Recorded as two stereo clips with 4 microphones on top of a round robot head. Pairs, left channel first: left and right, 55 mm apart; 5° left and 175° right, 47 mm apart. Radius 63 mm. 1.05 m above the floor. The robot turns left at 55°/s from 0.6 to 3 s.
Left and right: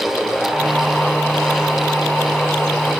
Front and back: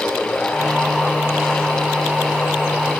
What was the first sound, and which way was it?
Only background noise.